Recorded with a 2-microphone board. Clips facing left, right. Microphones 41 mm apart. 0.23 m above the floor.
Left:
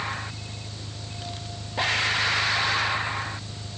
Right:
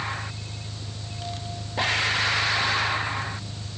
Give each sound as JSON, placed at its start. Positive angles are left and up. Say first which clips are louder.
{"t": 0.0, "sound": "an engine running", "louder": "even", "side_deg": 45}